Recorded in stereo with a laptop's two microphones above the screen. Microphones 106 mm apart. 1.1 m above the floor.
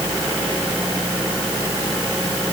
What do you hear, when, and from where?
Only background noise.